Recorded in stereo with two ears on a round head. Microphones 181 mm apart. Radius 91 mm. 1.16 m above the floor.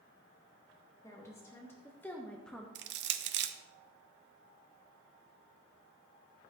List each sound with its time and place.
1.0 s a woman speaking: 15° left (ahead or behind), 1.7 m; by 2.6 s centre (ahead or behind), 0.9 m
2.8 s crushing: 55° right (ahead or behind), 0.6 m